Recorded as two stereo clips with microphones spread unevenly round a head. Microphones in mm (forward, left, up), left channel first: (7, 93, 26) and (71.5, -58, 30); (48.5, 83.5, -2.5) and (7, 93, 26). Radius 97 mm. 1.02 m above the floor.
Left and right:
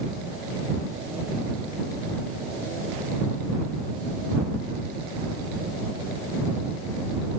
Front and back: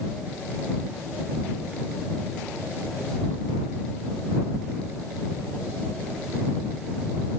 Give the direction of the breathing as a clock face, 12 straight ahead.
No breathing in this recording.